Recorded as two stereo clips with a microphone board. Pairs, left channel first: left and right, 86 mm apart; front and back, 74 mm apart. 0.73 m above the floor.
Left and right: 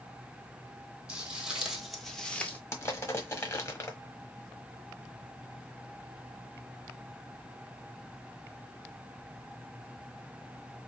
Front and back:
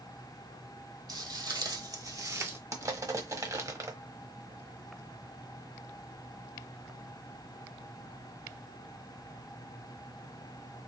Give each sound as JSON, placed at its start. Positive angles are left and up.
{"t": 1.1, "sound": "footsteps", "azimuth_deg": -165, "distance_m": 1.7}
{"t": 2.7, "sound": "crushing", "azimuth_deg": 145, "distance_m": 1.1}